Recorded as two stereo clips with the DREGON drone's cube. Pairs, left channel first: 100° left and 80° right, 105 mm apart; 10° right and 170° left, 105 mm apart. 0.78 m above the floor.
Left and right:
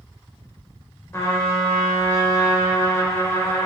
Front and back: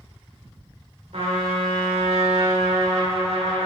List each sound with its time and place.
1.1 s a trumpet: 165° left, 1.6 m